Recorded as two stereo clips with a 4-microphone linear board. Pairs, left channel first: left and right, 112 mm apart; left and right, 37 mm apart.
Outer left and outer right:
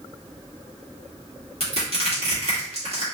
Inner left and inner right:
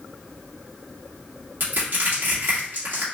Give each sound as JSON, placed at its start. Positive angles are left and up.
{"t": 1.6, "sound": "crushing", "side_deg": -65, "distance_m": 2.0}